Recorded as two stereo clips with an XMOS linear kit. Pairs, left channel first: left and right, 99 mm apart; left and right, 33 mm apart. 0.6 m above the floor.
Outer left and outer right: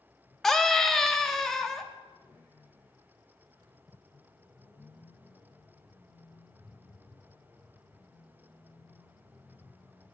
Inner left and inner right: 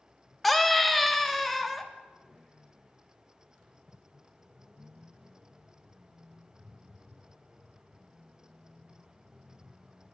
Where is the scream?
5° left (ahead or behind), 0.7 m.